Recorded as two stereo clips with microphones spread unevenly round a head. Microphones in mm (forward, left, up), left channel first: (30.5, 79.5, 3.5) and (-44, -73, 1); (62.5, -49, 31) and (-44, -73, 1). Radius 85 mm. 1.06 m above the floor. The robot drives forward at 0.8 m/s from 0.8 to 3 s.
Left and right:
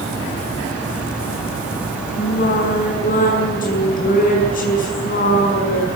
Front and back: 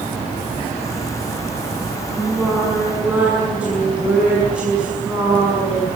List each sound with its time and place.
2.2 s singing: 100° left, 6.5 m; by 5.9 s 105° left, 6.5 m